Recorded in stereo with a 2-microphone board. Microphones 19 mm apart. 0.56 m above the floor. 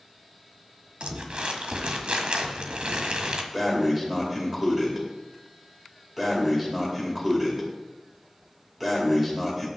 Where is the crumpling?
75° right (ahead or behind), 1.6 m.